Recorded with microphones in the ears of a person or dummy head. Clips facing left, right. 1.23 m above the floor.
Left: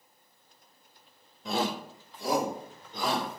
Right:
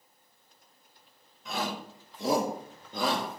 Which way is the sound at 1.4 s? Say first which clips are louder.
Left 4 dB; 30° left (ahead or behind).